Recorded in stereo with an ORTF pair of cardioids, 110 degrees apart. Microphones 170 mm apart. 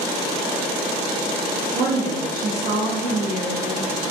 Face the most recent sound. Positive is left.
turn(degrees=-60)